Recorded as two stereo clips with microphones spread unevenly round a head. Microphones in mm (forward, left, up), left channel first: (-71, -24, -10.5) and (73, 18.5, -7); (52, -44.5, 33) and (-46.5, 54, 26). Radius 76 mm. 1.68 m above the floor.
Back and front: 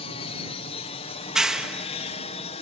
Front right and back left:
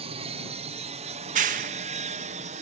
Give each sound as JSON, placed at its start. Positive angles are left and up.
{"t": 0.0, "sound": "an aircraft", "azimuth_deg": 160}
{"t": 1.2, "sound": "a clap", "azimuth_deg": 100}